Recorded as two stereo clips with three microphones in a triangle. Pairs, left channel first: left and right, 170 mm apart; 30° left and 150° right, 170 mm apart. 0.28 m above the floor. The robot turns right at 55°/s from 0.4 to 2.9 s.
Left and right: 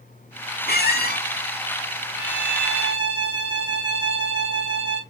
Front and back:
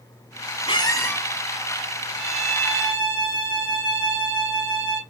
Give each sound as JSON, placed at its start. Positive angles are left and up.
{"t": 0.7, "sound": "a squeak", "azimuth_deg": 85, "distance_m": 0.6}
{"t": 2.1, "sound": "a violin", "azimuth_deg": -75, "distance_m": 1.8}